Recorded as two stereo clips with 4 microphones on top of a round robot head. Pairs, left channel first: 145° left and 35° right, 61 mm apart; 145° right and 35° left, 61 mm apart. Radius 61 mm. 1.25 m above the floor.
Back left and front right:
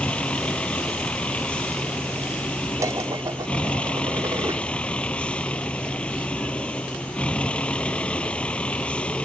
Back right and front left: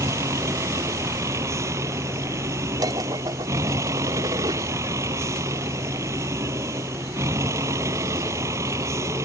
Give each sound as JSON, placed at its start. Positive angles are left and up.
{"t": 0.0, "sound": "a vehicle", "azimuth_deg": 75}
{"t": 2.8, "sound": "dishes clattering", "azimuth_deg": 5}